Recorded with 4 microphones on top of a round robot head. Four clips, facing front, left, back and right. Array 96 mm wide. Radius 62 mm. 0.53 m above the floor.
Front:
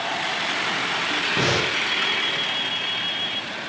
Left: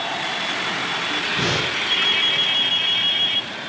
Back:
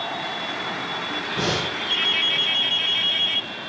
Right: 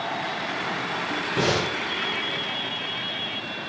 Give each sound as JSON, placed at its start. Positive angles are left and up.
{"t": 1.4, "sound": "breathing", "azimuth_deg": -55, "distance_m": 4.5}